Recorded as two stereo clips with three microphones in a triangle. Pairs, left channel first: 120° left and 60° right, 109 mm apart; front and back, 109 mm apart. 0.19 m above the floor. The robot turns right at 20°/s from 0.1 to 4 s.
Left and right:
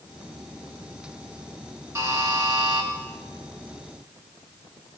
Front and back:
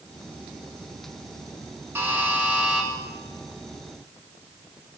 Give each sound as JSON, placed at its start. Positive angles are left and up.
{"t": 1.9, "sound": "a buzzer", "azimuth_deg": -115, "distance_m": 2.0}